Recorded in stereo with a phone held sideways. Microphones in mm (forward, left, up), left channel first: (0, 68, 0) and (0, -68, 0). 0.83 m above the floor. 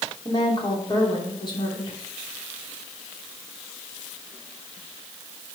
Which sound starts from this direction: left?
A woman speaking, at 0.2 s.